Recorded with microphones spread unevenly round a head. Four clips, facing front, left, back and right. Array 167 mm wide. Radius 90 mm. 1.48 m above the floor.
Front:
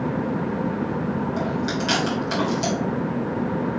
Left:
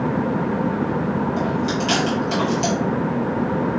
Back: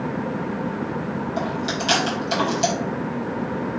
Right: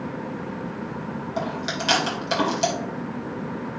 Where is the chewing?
90° right, 3 m.